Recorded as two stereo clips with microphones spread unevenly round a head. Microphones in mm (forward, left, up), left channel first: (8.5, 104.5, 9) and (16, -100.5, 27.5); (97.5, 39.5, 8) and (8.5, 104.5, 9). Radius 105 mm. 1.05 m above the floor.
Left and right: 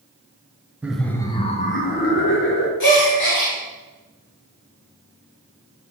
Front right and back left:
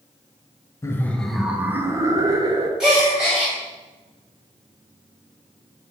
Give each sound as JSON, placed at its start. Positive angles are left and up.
{"t": 0.8, "sound": "laughter", "azimuth_deg": 0, "distance_m": 0.5}
{"t": 2.8, "sound": "a gasp", "azimuth_deg": 60, "distance_m": 1.8}